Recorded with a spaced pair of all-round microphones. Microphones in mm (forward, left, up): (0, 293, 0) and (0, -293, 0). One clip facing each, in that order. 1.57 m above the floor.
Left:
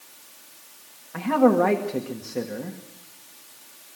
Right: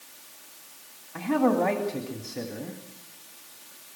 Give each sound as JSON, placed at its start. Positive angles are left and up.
{"t": 1.1, "sound": "a man speaking", "side_deg": 80, "distance_m": 2.0}